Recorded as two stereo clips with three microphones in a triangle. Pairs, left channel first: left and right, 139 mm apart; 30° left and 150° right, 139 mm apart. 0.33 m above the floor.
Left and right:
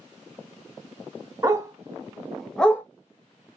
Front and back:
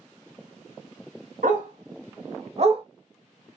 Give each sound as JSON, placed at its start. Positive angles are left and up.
{"t": 1.4, "sound": "a dog barking", "azimuth_deg": -155, "distance_m": 1.2}